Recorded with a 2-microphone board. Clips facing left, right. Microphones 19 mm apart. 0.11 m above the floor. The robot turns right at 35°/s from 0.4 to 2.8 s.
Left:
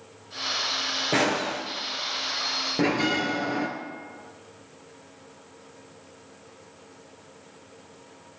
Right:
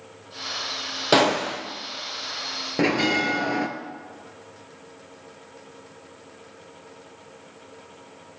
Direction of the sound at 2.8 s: 20° right (ahead or behind).